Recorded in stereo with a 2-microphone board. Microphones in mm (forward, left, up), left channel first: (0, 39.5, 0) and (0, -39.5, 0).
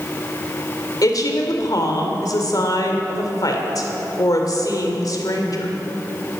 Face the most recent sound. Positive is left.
turn(degrees=55)  # may be behind; listen again after turning